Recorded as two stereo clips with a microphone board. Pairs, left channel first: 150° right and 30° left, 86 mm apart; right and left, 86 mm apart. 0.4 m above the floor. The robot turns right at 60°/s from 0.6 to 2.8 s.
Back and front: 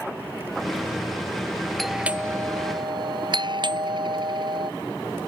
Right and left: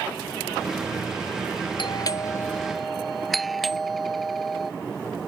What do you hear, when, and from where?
1.8 s a doorbell: 60° right; by 4.7 s straight ahead